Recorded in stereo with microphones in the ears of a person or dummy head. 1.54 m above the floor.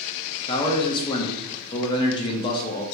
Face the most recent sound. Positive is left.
turn(degrees=20)  # may be behind; listen again after turning